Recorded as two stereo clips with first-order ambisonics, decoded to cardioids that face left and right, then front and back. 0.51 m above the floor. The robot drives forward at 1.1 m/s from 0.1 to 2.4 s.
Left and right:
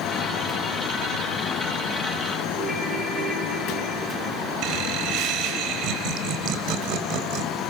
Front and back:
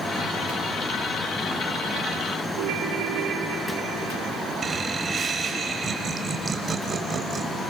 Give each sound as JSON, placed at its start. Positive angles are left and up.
{"t": 2.6, "sound": "a ringtone", "azimuth_deg": 180, "distance_m": 4.0}
{"t": 4.6, "sound": "laughter", "azimuth_deg": -115, "distance_m": 2.5}